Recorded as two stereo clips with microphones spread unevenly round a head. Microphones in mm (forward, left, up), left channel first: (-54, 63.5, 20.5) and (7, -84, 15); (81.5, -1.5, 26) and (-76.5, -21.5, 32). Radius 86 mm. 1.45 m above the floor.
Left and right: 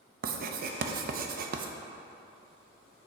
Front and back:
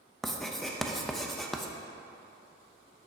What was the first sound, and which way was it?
Writing, 80° right.